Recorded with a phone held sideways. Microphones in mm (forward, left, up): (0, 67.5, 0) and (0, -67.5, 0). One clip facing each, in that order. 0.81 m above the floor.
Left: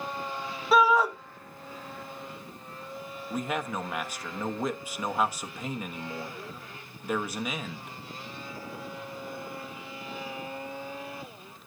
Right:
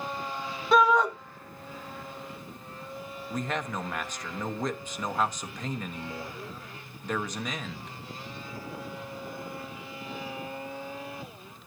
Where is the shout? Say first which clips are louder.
Even; 5° left (ahead or behind), 1.1 m.